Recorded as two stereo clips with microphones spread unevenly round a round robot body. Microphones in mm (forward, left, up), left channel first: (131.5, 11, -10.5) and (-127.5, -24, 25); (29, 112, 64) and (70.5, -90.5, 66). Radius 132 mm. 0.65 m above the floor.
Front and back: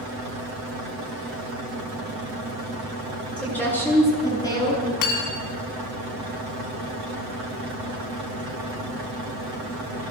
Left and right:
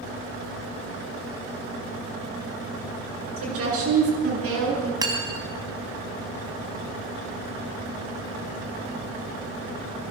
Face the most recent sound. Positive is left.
turn(degrees=-5)